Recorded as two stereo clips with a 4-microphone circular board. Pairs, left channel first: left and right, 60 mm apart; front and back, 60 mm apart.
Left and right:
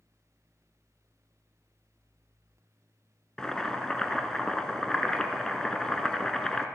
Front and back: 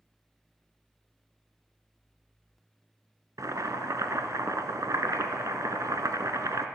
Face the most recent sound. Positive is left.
turn(degrees=170)